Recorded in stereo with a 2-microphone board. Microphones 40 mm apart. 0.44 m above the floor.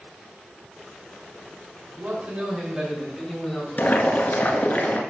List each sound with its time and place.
2.0 s a man speaking: 45° right (ahead or behind), 2.5 m; by 4.8 s 35° left (ahead or behind), 4 m
3.8 s boiling: 45° left (ahead or behind), 1.2 m